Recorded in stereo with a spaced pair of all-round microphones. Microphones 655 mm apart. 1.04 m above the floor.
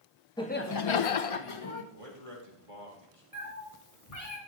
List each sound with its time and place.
0.4 s laughter: 5° left (ahead or behind), 1.1 m; by 1.8 s 40° left (ahead or behind), 1.6 m
1.9 s a man speaking: 50° right (ahead or behind), 4 m
3.3 s a cat meowing: 65° left (ahead or behind), 2.5 m